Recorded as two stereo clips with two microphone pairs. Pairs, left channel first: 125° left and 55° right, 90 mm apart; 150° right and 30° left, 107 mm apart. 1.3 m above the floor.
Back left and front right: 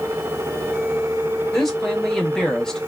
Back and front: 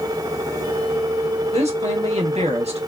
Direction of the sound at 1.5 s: 40° left.